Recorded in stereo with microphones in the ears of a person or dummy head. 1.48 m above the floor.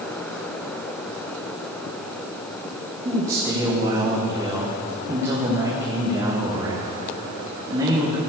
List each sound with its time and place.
3.0 s a man speaking: 15° right (ahead or behind), 1.5 m